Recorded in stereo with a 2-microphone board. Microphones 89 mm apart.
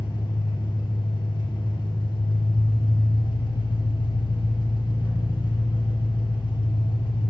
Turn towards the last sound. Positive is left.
turn(degrees=60)  # may be behind; listen again after turning